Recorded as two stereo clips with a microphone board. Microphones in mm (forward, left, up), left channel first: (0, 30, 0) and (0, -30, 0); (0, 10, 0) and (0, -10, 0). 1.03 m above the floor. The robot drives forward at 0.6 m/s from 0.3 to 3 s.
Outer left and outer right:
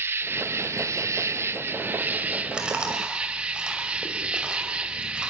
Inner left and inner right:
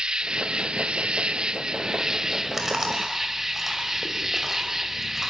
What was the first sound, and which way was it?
An insect, 40° right (ahead or behind).